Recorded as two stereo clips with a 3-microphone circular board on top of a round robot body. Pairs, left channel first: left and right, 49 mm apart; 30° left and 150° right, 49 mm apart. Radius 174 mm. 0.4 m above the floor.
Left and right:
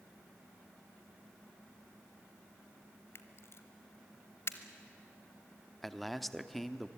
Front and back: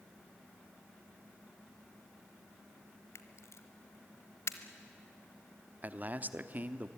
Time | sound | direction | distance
3.1 | a camera shutter | 55° left | 1.0 m
5.8 | a man speaking | 175° left | 1.2 m